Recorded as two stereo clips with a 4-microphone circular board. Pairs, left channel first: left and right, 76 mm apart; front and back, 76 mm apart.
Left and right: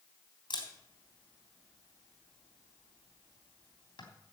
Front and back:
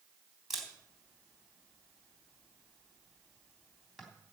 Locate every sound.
0.5 s a camera shutter: 90° left, 3 m